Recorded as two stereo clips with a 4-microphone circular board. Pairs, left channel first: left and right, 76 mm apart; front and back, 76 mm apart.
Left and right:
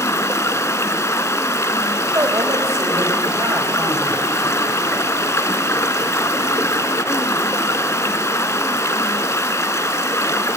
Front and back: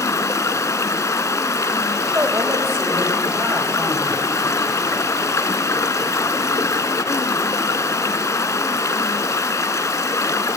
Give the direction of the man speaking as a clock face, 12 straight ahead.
4 o'clock.